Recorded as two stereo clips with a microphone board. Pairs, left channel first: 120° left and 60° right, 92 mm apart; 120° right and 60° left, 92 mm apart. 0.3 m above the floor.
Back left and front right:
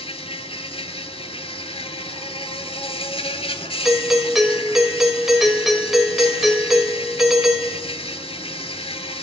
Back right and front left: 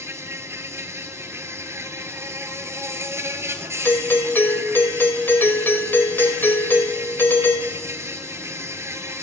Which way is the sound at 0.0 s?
120° left.